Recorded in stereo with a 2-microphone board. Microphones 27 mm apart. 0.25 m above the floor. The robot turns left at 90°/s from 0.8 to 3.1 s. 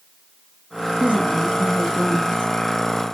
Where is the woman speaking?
130° right, 3 m; by 2.5 s 95° left, 3 m.